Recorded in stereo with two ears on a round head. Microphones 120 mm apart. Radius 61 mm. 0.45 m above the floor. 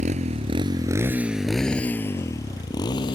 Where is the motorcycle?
55° right (ahead or behind); by 3.1 s 35° left (ahead or behind).